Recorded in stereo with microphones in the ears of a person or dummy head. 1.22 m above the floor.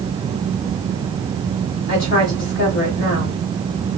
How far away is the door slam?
No door slam in this recording.